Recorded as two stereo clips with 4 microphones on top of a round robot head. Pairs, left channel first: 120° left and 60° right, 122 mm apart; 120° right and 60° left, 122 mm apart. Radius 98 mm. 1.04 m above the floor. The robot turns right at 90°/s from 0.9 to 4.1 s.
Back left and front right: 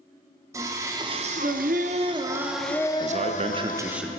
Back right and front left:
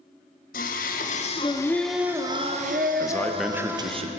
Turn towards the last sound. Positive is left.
turn(degrees=30)